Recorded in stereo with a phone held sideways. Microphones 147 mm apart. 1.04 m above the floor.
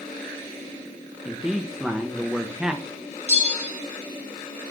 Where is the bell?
50° right (ahead or behind), 1.9 m.